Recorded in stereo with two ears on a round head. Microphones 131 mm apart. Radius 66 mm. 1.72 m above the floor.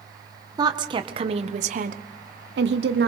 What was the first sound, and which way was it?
A woman speaking, 30° right (ahead or behind).